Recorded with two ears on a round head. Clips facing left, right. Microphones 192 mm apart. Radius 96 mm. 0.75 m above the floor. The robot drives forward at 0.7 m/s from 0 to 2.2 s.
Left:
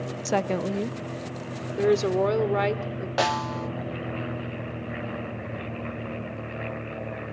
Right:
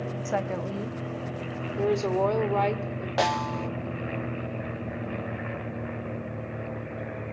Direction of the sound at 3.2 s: 5° left (ahead or behind).